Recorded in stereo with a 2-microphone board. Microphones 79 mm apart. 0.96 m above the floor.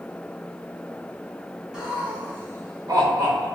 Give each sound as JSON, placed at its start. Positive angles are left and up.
{"t": 1.7, "sound": "laughter", "side_deg": -10, "distance_m": 0.7}